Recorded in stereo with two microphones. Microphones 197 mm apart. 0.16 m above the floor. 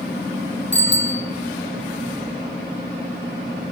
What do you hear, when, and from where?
0.7 s a bicycle bell: 65° left (ahead or behind), 4 m